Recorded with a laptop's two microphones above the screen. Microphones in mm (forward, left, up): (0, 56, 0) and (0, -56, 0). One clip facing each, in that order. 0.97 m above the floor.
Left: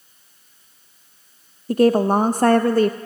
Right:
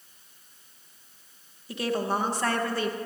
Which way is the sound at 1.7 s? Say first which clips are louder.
Left 12 dB; 45° left (ahead or behind).